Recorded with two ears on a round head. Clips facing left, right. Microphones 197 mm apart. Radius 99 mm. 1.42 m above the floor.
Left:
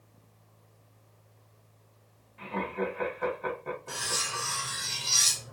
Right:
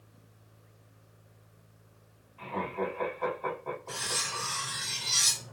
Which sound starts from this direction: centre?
Cutlery clinking, at 3.9 s.